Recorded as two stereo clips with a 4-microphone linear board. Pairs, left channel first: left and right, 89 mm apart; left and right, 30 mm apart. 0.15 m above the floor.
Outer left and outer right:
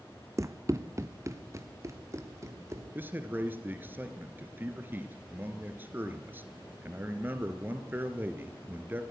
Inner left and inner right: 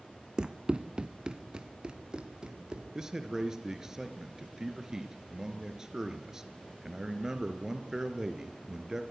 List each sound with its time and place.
0.4 s running footsteps: 35° right (ahead or behind), 0.5 m
3.0 s a man speaking: 25° right (ahead or behind), 2 m